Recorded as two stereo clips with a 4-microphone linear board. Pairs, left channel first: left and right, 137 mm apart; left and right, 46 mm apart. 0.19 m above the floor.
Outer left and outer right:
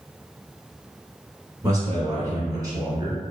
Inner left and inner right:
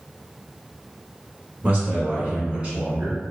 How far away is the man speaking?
About 1.4 m.